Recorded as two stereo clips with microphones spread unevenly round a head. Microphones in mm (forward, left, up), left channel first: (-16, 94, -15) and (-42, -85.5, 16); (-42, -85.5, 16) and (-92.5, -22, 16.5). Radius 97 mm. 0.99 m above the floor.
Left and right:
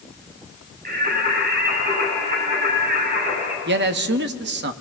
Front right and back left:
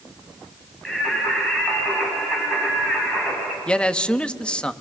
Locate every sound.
0.8 s singing: 135° right, 8.5 m
3.7 s a man speaking: 130° right, 1.2 m